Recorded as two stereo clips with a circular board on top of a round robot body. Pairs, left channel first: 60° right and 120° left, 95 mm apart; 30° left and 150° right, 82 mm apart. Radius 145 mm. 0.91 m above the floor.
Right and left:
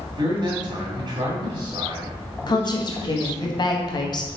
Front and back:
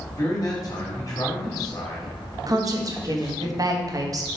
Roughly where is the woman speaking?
Right.